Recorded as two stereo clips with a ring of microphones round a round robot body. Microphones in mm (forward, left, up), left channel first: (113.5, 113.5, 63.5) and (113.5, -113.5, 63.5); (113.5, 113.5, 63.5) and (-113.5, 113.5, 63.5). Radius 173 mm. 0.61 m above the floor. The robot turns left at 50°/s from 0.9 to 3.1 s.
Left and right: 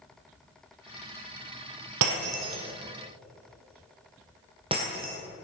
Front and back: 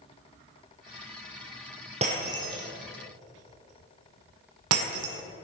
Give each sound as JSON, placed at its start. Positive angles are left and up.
{"t": 2.0, "sound": "breaking glass", "azimuth_deg": -110, "distance_m": 1.3}